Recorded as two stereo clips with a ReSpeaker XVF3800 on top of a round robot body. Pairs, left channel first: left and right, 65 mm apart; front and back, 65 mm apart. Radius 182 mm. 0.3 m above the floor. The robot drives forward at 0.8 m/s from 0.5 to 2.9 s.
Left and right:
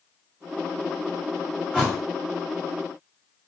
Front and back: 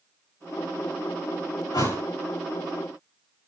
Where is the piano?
No piano in this recording.